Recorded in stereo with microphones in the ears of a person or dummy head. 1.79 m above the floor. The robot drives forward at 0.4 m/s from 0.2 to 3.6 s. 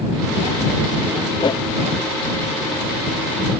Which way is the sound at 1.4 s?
25° left (ahead or behind).